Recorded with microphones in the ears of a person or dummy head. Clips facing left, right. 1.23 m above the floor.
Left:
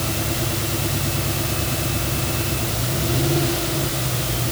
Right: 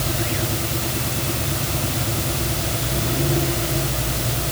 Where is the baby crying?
I don't hear a baby crying.